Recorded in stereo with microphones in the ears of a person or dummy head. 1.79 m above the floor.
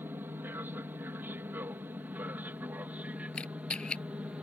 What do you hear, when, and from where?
0.0 s an aircraft: 15° right (ahead or behind); by 4.5 s 10° right (ahead or behind)
3.3 s a camera shutter: 5° left (ahead or behind)